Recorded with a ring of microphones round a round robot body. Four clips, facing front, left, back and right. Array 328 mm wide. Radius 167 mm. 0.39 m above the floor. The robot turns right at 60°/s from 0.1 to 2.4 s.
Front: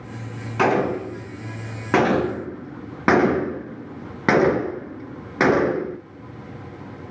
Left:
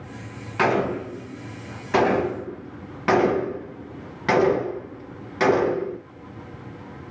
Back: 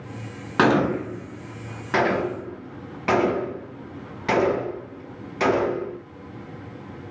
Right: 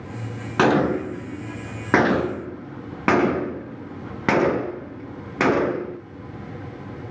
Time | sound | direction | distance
0.6 | a gunshot | 140° right | 2 m